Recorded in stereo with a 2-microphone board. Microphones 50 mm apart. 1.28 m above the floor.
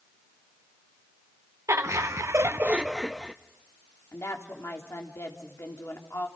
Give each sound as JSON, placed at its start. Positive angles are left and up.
{"t": 1.7, "sound": "laughter", "side_deg": -80, "distance_m": 1.2}
{"t": 4.1, "sound": "a woman speaking", "side_deg": 65, "distance_m": 3.5}